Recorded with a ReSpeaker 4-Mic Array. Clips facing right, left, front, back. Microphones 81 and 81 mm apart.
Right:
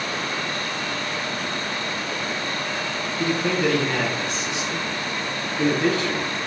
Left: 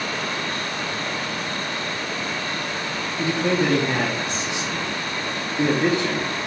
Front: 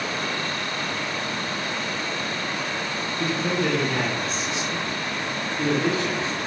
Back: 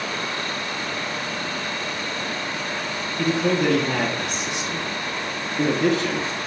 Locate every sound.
3.2 s a man speaking: 160° left, 0.9 m